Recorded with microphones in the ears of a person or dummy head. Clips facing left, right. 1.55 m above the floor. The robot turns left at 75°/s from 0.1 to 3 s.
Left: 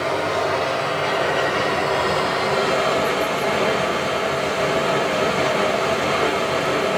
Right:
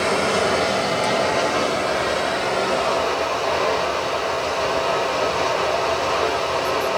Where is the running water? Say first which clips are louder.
Right 2 dB; 105° right, 1.1 m; by 7.0 s 40° left, 1.1 m.